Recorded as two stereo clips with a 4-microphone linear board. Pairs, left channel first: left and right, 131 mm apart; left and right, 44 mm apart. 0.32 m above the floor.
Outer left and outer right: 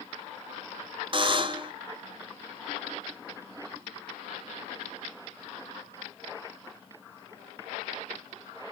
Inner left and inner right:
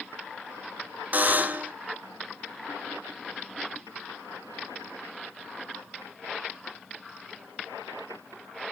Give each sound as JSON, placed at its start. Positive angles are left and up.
{"t": 1.1, "sound": "a buzzer", "side_deg": -40, "distance_m": 1.0}